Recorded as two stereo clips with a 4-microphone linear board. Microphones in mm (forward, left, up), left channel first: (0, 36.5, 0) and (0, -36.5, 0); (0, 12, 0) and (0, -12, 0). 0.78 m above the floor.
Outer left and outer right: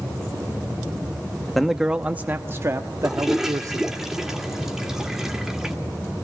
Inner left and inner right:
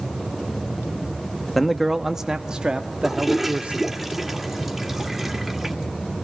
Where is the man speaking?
5° left (ahead or behind), 0.9 m; by 3.9 s 55° right (ahead or behind), 1.8 m.